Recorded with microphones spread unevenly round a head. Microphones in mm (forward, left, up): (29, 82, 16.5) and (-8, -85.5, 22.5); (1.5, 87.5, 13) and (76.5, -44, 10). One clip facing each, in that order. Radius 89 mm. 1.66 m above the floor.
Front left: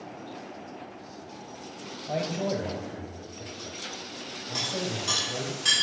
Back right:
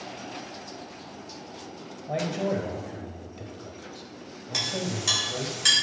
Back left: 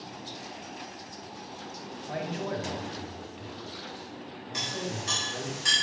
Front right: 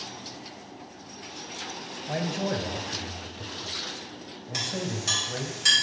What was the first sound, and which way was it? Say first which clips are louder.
A man speaking: back right 1 dB, front right 4 dB; 15° right.